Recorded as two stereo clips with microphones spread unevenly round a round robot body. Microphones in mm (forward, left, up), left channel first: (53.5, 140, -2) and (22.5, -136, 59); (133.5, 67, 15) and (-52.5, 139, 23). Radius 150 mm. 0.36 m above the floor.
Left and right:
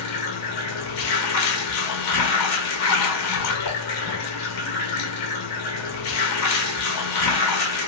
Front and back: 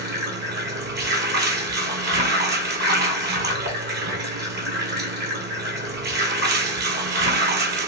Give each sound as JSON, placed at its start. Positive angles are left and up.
{"t": 0.0, "sound": "running water", "azimuth_deg": 125, "distance_m": 1.0}